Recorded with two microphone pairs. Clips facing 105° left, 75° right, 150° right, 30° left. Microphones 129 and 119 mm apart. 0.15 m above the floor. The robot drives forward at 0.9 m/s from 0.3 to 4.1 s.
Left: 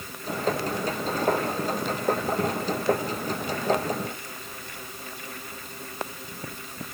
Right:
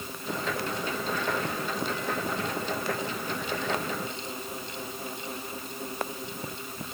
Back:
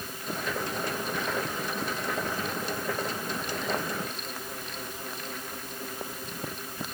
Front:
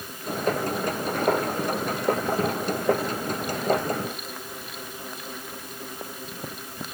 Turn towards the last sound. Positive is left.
No sound to turn to.